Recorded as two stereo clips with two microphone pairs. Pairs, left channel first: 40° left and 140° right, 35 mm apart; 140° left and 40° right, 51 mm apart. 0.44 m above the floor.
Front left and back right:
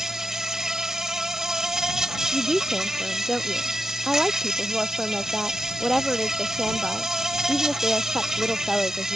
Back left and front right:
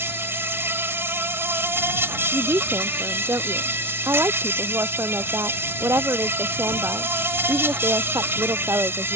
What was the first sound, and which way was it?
An insect, 65° right.